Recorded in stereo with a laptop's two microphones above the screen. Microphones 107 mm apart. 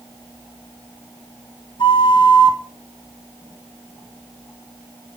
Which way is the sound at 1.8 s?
50° left (ahead or behind).